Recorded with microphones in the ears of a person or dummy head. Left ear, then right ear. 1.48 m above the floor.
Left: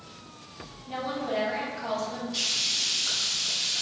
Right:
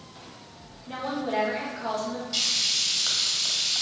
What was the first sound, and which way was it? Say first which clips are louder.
A woman speaking: right 1 dB; 55° right (ahead or behind).